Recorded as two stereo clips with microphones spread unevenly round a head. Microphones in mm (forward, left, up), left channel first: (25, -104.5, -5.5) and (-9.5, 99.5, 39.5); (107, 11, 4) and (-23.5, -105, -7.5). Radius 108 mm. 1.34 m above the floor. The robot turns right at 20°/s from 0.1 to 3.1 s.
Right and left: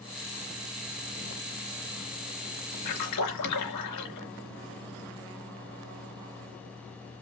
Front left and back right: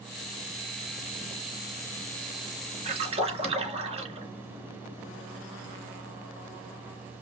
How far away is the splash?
About 3 m.